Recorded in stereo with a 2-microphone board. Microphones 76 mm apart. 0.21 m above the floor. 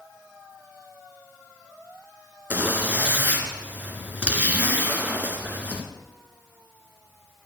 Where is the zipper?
20° right (ahead or behind), 2.5 m.